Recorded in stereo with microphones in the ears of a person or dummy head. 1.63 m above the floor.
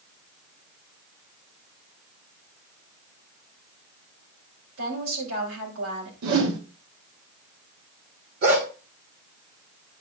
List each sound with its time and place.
4.8 s a woman speaking: 75° right (ahead or behind), 4.5 m
6.2 s a whoosh: 85° right, 1.9 m
8.4 s a dog barking: 50° right (ahead or behind), 2.5 m